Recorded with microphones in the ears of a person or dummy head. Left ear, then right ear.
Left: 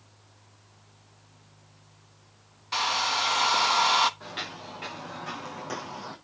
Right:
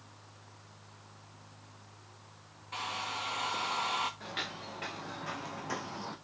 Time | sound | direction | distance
2.7 | a hair dryer | 60° left (ahead or behind) | 0.9 m
4.2 | footsteps | 5° right (ahead or behind) | 5 m